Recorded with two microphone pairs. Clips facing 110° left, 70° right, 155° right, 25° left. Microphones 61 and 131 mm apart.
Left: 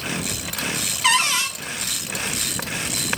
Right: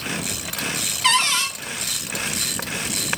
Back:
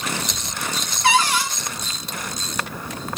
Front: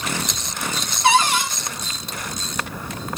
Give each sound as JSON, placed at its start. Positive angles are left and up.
{"t": 1.0, "sound": "a cupboard door", "azimuth_deg": 40, "distance_m": 0.6}